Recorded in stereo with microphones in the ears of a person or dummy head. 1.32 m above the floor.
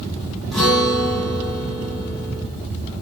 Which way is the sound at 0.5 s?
5° left (ahead or behind).